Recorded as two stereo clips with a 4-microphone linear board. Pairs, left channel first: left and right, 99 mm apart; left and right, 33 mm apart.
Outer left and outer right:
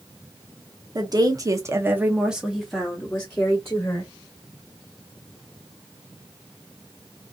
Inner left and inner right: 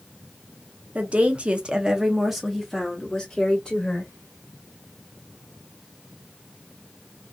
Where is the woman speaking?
45° right (ahead or behind), 0.9 m; by 4.1 s 25° left (ahead or behind), 1.4 m.